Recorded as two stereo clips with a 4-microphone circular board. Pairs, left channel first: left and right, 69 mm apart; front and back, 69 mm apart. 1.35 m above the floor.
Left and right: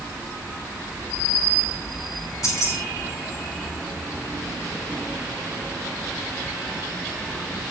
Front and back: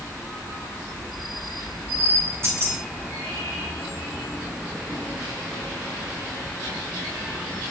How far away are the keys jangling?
About 7.5 m.